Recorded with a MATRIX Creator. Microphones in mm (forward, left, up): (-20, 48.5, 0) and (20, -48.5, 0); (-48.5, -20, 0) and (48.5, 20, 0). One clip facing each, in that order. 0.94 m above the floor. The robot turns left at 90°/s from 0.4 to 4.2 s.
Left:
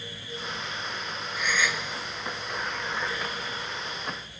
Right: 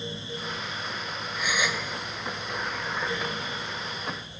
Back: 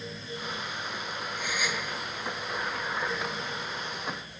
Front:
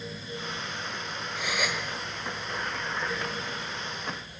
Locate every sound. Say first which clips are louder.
1.4 s a gasp: even, front 3 dB; 30° left, 2.5 m; by 1.8 s 15° right, 2.5 m